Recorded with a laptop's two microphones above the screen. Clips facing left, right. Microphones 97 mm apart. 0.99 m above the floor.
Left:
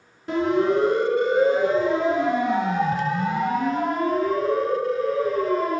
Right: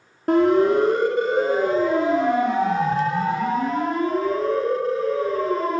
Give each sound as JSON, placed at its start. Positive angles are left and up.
{"t": 0.3, "sound": "a siren", "side_deg": -60, "distance_m": 3.5}